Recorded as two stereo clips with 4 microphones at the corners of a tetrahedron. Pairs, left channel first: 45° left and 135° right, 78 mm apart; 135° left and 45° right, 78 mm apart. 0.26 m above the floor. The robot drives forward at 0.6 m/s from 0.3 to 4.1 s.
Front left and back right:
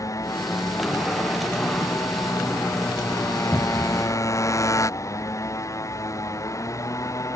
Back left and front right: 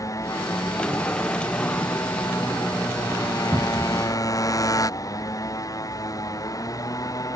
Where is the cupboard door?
20° right; by 4.0 s 30° right.